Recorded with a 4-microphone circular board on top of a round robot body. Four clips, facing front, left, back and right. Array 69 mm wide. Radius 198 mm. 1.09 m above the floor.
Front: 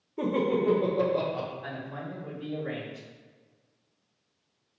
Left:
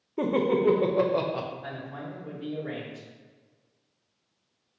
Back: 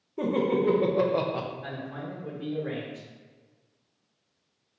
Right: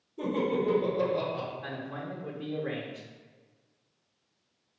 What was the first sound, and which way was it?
Laughter, 90° left.